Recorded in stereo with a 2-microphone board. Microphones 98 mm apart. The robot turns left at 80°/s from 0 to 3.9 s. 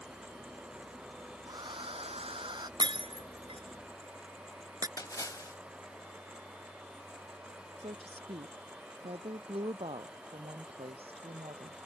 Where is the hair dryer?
35° right; by 2.7 s 135° right.